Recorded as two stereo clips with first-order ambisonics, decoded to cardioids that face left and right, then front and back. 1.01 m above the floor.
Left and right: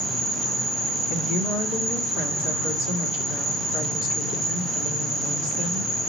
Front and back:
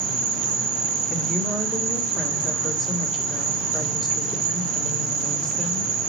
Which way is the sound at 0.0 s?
175° left.